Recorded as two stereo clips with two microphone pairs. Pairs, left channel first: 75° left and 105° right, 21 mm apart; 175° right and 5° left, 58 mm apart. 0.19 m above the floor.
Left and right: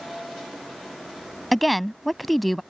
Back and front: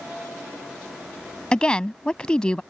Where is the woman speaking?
150° left.